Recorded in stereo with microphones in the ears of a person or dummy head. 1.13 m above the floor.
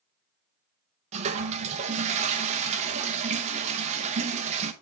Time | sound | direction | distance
1.1 | a toilet flushing | 35° right (ahead or behind) | 1.0 m